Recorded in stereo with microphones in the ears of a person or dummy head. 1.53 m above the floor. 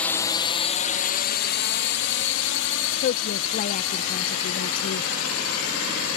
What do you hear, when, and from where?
0.0 s a drone: centre (ahead or behind); by 6.2 s 75° left (ahead or behind)
3.0 s a woman speaking: 40° left (ahead or behind)